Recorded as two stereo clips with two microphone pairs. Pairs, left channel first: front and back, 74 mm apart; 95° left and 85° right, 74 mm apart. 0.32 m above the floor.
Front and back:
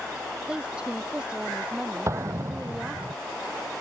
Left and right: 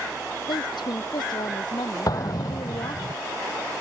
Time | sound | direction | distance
0.5 | a woman speaking | 105° left | ?
2.1 | an explosion | 130° left | ?